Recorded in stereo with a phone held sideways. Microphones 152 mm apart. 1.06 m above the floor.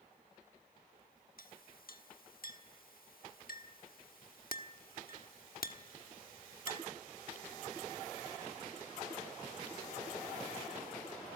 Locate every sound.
1.4 s a clink: 75° left (ahead or behind), 1.2 m